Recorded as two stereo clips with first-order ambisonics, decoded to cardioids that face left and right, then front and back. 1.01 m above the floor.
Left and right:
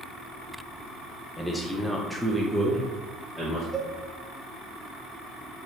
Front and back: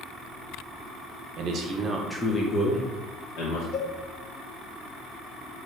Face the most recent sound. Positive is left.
turn(degrees=-10)